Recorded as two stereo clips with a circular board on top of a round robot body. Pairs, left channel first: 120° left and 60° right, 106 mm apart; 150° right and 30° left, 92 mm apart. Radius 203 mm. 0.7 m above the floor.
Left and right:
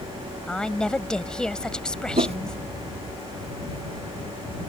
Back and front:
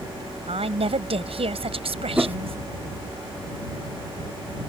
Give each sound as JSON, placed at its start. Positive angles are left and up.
{"t": 0.5, "sound": "a woman speaking", "azimuth_deg": 35}
{"t": 2.2, "sound": "a whoosh", "azimuth_deg": -40}